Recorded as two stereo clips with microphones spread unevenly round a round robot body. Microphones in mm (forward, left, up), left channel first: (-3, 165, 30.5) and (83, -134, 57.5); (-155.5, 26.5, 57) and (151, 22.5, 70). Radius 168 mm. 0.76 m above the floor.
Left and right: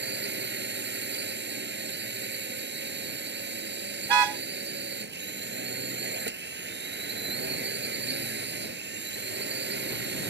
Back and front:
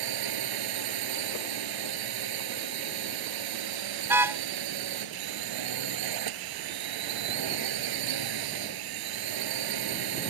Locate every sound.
0.0 s a drone: 15° right
4.0 s a car horn: 85° right